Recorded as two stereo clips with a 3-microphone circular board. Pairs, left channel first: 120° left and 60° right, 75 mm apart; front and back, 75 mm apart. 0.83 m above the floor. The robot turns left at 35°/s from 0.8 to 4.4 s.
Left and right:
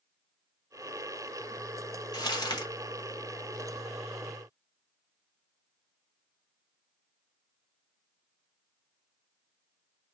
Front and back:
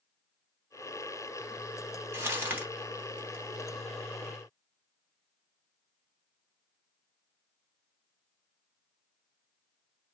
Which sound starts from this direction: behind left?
Crumpling, at 2.1 s.